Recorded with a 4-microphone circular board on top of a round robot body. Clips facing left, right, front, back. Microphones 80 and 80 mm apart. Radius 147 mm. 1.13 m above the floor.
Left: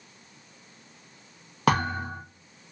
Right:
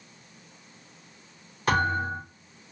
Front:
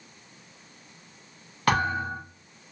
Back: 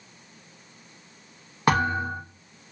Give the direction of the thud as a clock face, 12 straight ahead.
8 o'clock.